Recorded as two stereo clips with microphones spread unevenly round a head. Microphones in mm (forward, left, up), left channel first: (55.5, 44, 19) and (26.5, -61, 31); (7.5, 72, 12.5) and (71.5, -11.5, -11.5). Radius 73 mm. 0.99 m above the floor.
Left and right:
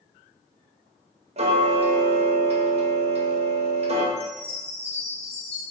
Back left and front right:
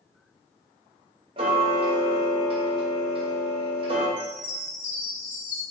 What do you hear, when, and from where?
1.4 s ticking: 85° right, 1.2 m
4.2 s a chime: 155° left, 2 m